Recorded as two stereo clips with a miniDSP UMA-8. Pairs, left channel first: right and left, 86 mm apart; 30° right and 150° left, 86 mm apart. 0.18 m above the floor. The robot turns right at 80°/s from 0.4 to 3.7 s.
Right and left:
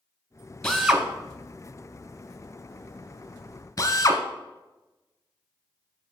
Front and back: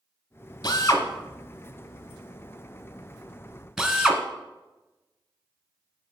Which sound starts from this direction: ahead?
A drill, at 0.6 s.